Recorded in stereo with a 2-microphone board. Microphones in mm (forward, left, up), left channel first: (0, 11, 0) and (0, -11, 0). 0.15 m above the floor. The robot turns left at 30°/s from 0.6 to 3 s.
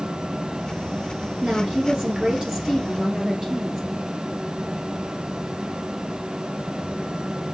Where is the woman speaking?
115° right, 2 m; by 3.8 s 165° right, 2 m.